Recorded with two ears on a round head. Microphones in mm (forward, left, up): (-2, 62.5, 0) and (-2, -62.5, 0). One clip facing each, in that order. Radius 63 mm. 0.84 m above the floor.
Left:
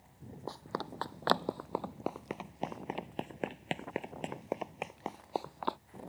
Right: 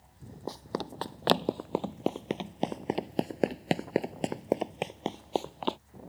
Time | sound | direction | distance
0.5 | running footsteps | 20° right (ahead or behind) | ?